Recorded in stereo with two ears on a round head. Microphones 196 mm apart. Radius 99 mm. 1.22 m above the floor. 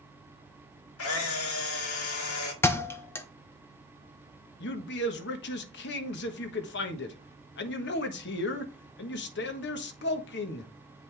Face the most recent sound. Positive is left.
turn(degrees=50)  # may be behind; listen again after turning